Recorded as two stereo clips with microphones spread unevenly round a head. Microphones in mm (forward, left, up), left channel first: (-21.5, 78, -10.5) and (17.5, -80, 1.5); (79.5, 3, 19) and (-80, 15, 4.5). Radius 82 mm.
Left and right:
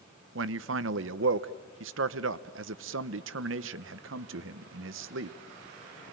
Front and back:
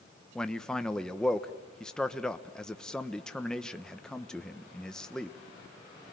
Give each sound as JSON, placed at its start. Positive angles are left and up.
{"t": 0.3, "sound": "a man speaking", "azimuth_deg": -90, "distance_m": 1.0}